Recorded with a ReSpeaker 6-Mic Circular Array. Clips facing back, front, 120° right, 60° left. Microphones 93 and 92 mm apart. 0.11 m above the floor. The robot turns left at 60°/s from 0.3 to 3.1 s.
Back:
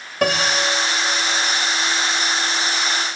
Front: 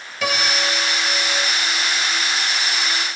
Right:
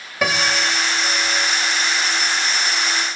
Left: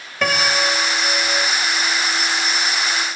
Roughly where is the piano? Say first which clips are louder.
Back 3 dB, left 1 dB; behind.